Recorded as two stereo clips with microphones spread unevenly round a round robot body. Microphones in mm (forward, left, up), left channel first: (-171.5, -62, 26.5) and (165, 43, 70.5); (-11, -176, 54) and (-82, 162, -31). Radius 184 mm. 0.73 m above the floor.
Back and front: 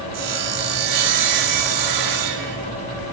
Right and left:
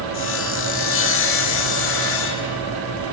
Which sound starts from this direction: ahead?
Sawing, at 0.1 s.